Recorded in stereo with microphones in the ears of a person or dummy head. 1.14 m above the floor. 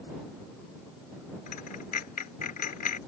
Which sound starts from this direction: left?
A dropped coin, at 1.5 s.